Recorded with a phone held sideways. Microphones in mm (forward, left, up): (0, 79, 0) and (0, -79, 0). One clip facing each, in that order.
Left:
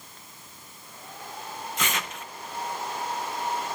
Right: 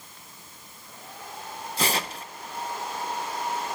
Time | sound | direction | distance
1.8 | tearing paper | 35° right (ahead or behind) | 0.6 m